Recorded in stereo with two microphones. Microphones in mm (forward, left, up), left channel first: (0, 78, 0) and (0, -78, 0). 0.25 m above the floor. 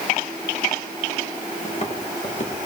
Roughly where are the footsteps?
Left.